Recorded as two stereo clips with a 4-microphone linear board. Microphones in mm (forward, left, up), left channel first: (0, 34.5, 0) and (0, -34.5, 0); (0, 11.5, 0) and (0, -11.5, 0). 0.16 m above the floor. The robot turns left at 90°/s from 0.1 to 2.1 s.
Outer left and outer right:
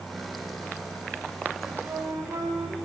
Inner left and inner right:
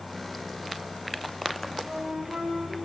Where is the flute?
10° right, 4.5 m; by 2.8 s 50° right, 4.5 m.